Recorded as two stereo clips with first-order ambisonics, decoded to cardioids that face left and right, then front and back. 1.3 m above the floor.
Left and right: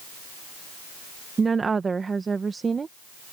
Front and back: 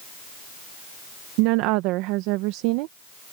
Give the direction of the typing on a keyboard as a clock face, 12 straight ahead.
No typing on a keyboard in this recording.